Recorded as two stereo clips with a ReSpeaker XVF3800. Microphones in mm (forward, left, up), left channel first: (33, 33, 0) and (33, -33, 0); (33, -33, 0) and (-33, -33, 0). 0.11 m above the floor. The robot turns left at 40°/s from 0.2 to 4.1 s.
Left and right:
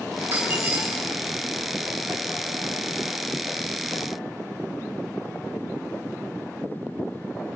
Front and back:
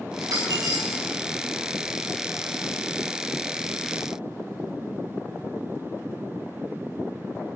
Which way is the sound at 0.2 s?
140° right.